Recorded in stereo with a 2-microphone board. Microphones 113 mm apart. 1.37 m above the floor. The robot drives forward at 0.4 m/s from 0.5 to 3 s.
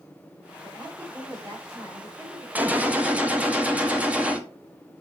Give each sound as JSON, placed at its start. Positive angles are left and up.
{"t": 0.6, "sound": "a woman speaking", "side_deg": -30, "distance_m": 5.0}
{"t": 2.5, "sound": "a gunshot", "side_deg": -15, "distance_m": 0.7}